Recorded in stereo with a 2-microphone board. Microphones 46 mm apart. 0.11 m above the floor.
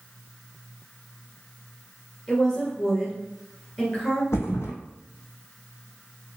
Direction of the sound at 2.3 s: 25° left (ahead or behind).